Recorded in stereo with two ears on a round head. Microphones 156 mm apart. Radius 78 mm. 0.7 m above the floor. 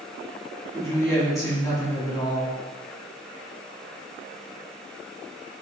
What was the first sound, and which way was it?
A woman speaking, 15° left (ahead or behind).